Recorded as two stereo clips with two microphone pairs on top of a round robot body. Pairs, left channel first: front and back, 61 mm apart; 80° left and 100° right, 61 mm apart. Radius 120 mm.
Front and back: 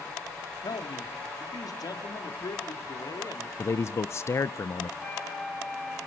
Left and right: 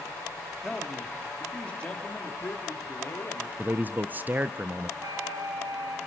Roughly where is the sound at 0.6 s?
Ahead.